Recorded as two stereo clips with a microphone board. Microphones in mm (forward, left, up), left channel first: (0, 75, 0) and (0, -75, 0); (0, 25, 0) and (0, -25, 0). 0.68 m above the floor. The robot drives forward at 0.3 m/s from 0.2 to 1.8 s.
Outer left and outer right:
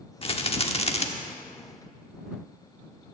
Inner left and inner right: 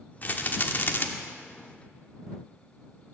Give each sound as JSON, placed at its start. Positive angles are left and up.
{"t": 0.2, "sound": "a rattle", "side_deg": 40, "distance_m": 1.3}